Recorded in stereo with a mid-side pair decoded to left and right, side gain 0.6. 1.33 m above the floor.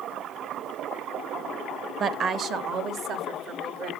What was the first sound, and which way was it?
A woman speaking, 40° right.